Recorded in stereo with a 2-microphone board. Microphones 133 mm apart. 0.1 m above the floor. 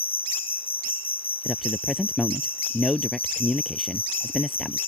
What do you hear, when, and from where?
0.0 s an insect: 45° left (ahead or behind)
1.4 s a man speaking: centre (ahead or behind)